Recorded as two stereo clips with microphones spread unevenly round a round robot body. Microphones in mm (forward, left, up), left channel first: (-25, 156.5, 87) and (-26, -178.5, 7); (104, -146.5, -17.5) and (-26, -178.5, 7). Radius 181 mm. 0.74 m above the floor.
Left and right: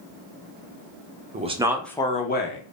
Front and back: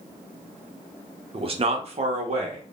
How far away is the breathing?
I don't hear breathing.